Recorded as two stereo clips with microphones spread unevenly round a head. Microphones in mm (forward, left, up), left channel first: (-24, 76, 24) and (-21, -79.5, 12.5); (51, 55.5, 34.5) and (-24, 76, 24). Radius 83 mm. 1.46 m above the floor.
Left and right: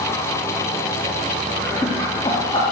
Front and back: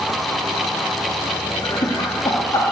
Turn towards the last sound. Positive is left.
turn(degrees=30)